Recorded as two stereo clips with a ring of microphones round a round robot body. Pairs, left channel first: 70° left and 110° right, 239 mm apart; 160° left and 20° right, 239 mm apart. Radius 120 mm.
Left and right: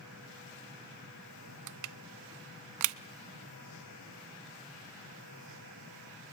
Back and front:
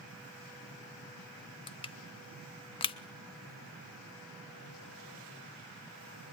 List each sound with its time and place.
1.7 s crushing: 130° right, 0.5 m